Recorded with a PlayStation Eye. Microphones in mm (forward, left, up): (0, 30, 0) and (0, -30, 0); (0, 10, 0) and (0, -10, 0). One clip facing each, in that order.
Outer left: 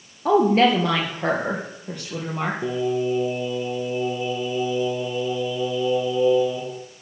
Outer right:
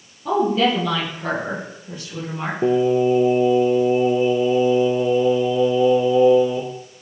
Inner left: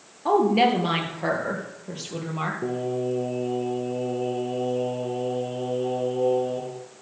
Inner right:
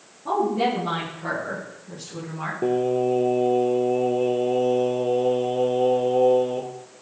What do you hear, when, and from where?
0.2 s a woman speaking: 70° left (ahead or behind), 4 m; by 2.5 s 80° left, 5.5 m
2.6 s singing: 50° right (ahead or behind), 1.5 m